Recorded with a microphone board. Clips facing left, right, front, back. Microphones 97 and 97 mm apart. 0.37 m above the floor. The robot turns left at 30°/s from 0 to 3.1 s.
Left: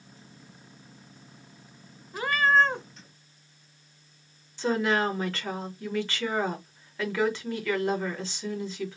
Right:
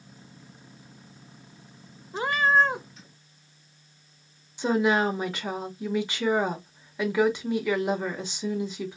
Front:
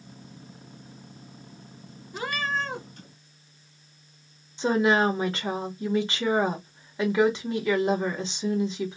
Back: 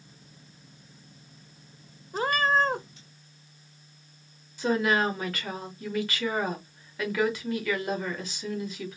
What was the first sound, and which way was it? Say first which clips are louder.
A cat meowing: even, back 6 dB; 145° right.